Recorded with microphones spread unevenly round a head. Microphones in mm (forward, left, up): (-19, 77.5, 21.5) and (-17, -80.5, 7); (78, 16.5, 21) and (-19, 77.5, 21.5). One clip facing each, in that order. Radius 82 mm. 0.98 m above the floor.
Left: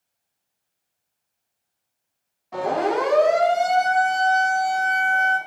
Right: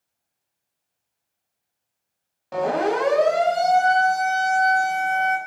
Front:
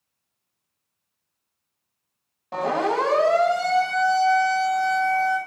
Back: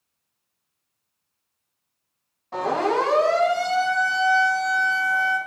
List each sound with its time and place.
2.5 s a siren: 80° right, 6 m; by 5.4 s 95° right, 6.5 m